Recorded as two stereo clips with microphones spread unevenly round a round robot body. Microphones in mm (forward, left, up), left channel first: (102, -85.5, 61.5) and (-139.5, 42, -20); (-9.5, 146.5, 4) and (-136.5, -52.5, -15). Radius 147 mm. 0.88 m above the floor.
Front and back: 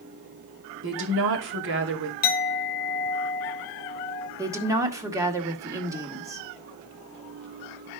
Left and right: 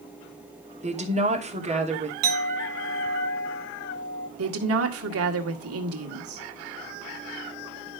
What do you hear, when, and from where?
0.8 s a woman speaking: straight behind, 2.5 m
2.2 s a clink: 85° right, 1.1 m
4.4 s a woman speaking: 135° right, 1.8 m